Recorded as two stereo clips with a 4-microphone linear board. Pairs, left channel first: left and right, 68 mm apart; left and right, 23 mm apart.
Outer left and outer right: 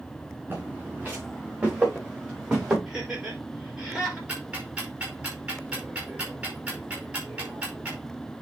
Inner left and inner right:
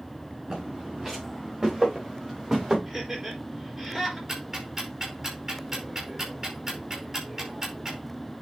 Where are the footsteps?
25° right (ahead or behind), 6 m; by 2.8 s 10° right (ahead or behind), 7.5 m.